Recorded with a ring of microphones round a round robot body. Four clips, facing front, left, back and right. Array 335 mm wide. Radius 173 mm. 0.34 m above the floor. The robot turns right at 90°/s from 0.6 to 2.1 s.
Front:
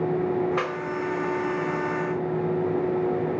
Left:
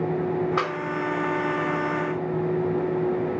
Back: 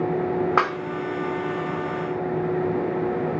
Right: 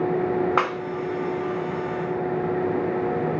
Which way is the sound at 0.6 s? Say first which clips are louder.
Right 3 dB, back 5 dB; 150° right.